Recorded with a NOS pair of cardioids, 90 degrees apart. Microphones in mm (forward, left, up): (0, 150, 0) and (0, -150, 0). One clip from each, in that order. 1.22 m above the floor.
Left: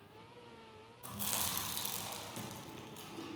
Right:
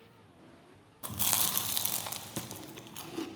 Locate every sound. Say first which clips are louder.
1.0 s chewing: right 7 dB; 45° right, 0.6 m